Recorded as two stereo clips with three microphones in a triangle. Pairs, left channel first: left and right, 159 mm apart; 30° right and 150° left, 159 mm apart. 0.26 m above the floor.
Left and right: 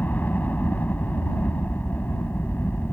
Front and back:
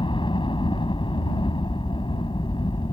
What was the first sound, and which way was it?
A helicopter, 15° left.